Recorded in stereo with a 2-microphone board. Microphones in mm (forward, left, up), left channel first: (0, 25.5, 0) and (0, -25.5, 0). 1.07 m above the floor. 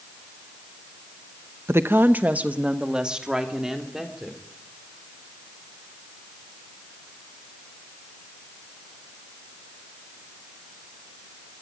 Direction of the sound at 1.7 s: 65° right (ahead or behind).